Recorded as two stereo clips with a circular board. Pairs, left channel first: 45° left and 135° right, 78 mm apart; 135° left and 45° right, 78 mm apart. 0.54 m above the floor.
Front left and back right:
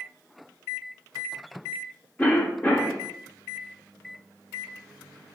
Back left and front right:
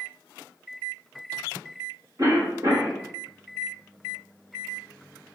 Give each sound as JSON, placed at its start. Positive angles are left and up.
{"t": 2.2, "sound": "a cough", "azimuth_deg": -25, "distance_m": 1.1}